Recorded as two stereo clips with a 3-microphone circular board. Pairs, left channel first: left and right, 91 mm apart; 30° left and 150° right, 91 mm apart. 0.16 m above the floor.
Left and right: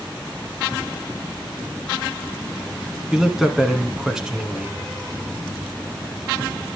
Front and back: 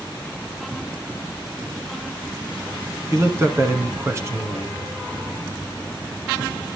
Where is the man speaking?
170° right, 1.9 m.